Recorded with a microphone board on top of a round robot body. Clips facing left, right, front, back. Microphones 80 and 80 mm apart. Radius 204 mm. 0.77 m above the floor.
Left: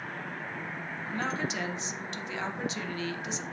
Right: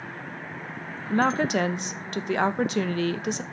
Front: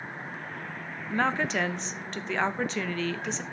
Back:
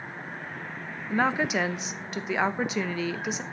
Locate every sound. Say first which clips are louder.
1.1 s a woman speaking: right 11 dB, back 2 dB; 100° right, 1.2 m